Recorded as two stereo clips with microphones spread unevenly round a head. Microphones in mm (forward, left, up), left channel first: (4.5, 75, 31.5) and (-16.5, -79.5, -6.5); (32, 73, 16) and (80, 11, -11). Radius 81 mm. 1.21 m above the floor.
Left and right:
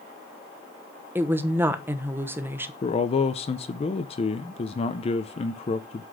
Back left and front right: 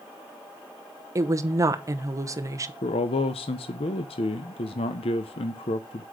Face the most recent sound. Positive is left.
turn(degrees=140)